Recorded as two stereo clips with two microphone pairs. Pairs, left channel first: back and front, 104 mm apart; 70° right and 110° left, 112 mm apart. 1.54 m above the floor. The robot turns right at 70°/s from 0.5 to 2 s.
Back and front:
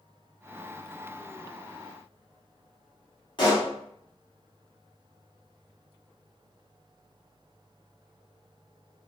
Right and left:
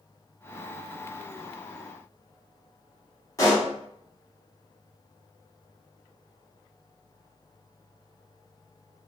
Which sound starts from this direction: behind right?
A pop, at 3.4 s.